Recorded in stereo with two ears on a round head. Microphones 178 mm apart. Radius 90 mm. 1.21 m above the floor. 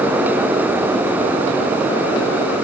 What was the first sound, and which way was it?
Only background noise.